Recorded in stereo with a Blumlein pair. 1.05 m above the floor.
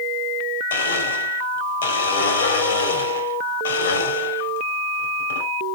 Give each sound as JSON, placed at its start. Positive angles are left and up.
{"t": 0.7, "sound": "a blender", "azimuth_deg": 65, "distance_m": 2.0}